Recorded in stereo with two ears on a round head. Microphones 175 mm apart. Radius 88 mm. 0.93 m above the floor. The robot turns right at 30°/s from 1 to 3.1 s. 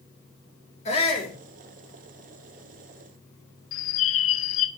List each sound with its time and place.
0.8 s a shout: 35° left (ahead or behind), 3 m; by 1.4 s 45° left (ahead or behind), 3 m
3.7 s a bird: 75° left (ahead or behind), 1.1 m